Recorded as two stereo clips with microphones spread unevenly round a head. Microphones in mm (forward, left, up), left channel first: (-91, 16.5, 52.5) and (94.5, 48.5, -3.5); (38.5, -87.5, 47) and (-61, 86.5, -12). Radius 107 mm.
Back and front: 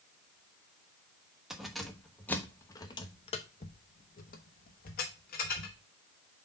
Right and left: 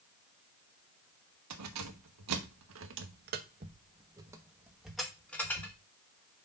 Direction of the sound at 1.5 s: 105° left.